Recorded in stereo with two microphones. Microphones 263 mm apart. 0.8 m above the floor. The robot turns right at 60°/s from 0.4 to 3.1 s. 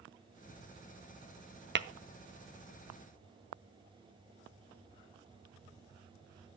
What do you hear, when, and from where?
1.8 s tapping: 45° right (ahead or behind), 0.6 m; by 1.9 s 50° right (ahead or behind), 0.6 m